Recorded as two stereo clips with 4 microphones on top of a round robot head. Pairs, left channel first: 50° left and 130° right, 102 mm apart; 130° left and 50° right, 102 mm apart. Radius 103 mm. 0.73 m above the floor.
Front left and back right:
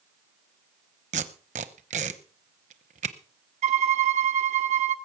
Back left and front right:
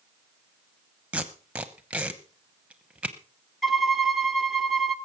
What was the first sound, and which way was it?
Tape being pulled, 130° right.